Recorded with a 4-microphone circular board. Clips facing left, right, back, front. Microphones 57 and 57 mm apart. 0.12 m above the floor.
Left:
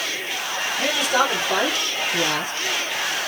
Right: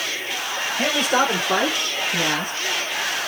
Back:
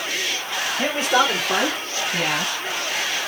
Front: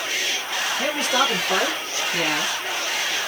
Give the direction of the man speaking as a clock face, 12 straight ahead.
4 o'clock.